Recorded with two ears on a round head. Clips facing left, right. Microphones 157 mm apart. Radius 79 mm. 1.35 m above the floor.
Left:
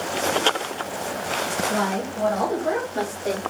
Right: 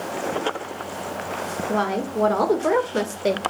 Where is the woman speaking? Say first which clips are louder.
Right 5 dB; 65° right (ahead or behind), 2.5 m; by 3.4 s 80° right, 1.8 m.